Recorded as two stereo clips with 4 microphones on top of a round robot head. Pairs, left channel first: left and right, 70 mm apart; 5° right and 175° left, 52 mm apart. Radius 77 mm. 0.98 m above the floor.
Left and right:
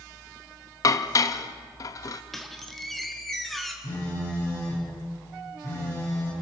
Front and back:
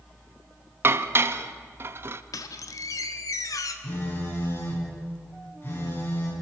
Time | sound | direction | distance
0.8 | dishes clattering | 130° left | 0.7 m
2.3 | a squeak | straight ahead | 1.3 m
3.8 | a phone buzzing | 40° left | 6 m